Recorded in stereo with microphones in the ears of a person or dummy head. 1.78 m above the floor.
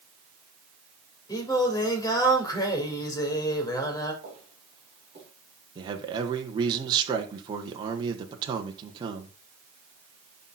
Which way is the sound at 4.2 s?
40° right (ahead or behind).